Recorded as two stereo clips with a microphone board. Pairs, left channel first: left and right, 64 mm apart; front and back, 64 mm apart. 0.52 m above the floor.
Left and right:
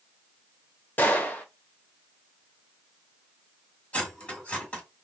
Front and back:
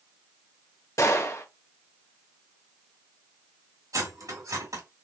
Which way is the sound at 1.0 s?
35° left.